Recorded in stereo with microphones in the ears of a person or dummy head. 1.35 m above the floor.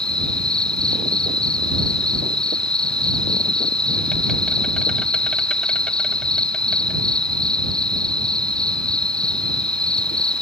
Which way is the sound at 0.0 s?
Centre (ahead or behind).